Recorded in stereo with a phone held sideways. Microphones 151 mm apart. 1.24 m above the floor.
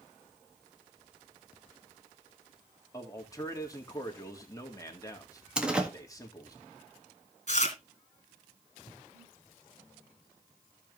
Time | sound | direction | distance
2.9 | a man speaking | 25° left (ahead or behind) | 2.0 m
5.6 | a door slam | 5° right (ahead or behind) | 1.7 m
7.5 | chewing | 50° left (ahead or behind) | 2.5 m
8.9 | breathing | 10° right (ahead or behind) | 3.5 m